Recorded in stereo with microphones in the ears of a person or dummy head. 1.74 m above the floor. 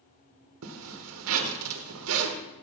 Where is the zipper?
75° right (ahead or behind), 1.3 m.